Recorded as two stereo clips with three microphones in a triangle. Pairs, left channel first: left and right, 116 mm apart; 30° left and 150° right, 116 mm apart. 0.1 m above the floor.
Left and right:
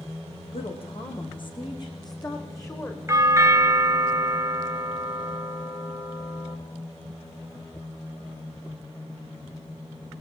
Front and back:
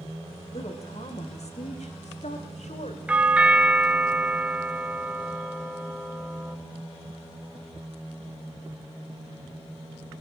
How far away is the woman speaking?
About 7 m.